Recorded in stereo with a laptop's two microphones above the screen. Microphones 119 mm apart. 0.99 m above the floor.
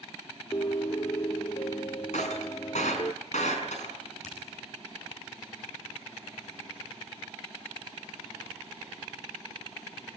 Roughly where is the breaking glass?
Left.